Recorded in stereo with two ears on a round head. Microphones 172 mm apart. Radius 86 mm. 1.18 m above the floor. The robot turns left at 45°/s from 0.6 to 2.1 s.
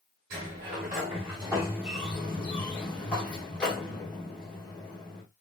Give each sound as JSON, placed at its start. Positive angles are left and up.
{"t": 0.3, "sound": "a sliding door", "azimuth_deg": -120, "distance_m": 1.9}